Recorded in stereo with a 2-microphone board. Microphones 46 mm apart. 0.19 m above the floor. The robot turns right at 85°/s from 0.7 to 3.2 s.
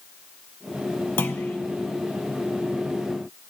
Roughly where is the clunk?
Left.